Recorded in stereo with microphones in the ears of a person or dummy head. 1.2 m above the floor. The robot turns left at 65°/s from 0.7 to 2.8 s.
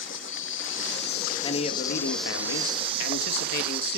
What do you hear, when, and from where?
0.0 s an insect: 100° left, 0.9 m; by 4.0 s 40° right, 0.9 m
1.4 s a man speaking: 155° left, 1.3 m; by 4.0 s 65° left, 1.3 m